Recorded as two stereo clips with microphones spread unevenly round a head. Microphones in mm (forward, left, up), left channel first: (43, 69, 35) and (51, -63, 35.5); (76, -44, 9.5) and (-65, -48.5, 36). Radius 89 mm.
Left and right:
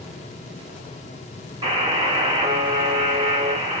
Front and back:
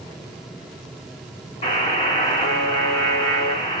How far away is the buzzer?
About 1.6 m.